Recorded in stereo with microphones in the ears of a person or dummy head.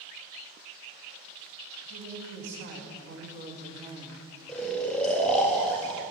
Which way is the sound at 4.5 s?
5° left (ahead or behind).